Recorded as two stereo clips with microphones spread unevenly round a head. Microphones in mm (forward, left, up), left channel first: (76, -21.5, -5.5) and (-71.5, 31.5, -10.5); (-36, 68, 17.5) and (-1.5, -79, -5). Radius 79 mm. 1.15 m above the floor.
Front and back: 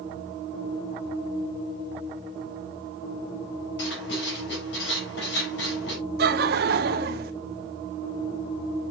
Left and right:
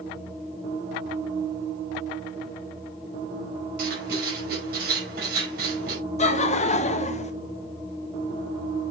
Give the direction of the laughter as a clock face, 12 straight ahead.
7 o'clock.